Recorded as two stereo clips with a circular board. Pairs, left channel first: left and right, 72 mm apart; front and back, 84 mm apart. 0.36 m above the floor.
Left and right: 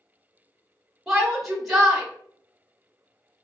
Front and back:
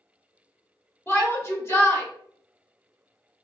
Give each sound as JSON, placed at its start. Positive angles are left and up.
{"t": 1.1, "sound": "a shout", "azimuth_deg": 0, "distance_m": 1.0}